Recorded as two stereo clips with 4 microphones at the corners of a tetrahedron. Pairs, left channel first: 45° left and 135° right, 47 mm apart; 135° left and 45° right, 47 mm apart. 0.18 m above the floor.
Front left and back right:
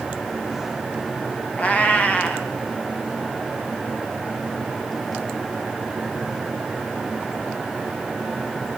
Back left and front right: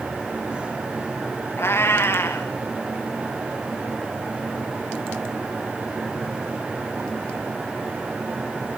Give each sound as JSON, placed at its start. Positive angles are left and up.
{"t": 1.6, "sound": "a cat meowing", "azimuth_deg": 105, "distance_m": 3.5}